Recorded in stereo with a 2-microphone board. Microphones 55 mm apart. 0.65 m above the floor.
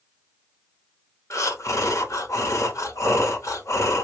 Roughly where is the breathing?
Left.